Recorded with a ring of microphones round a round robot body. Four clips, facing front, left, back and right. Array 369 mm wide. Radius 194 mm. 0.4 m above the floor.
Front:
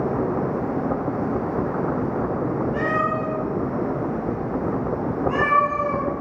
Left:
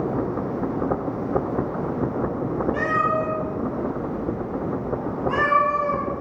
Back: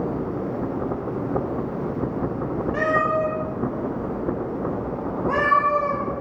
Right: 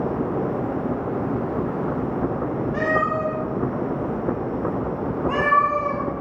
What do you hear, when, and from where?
2.7 s a cat meowing: 160° right, 10 m; by 6.0 s 145° right, 9 m